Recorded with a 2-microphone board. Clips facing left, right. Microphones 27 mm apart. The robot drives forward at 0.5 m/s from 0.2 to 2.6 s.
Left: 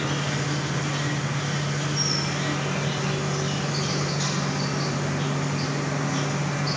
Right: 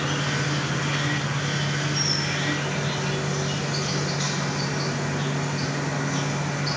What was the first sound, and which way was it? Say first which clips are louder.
An insect: right 1 dB; 70° right (ahead or behind).